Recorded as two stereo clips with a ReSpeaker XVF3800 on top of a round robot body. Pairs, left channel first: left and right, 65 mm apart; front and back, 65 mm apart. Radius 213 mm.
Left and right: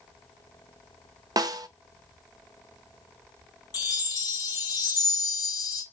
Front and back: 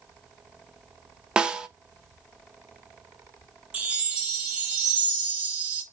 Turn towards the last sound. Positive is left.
turn(degrees=110)